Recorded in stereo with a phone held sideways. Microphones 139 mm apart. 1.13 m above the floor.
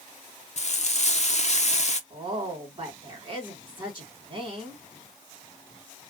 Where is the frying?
55° left (ahead or behind), 0.5 m.